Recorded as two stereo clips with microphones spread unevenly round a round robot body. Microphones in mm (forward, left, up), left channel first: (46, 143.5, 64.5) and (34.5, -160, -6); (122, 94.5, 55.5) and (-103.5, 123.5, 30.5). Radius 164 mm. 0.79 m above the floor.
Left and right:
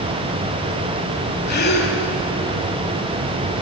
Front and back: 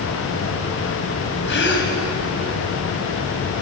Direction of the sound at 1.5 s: 30° left.